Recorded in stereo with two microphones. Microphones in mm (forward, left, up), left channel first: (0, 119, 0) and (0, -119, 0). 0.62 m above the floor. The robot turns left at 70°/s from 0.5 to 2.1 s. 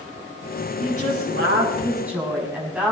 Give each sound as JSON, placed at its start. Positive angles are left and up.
{"t": 0.8, "sound": "a woman speaking", "azimuth_deg": -85, "distance_m": 5.5}